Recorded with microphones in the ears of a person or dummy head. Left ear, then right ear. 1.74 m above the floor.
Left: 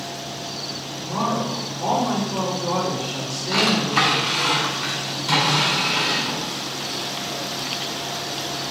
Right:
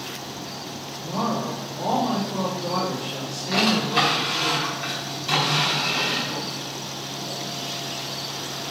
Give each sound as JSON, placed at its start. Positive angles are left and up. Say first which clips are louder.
{"t": 1.0, "sound": "a woman speaking", "louder": "left 2 dB", "side_deg": -15, "distance_m": 3.5}
{"t": 3.5, "sound": "a drawer", "louder": "left 1 dB", "side_deg": -10, "distance_m": 4.0}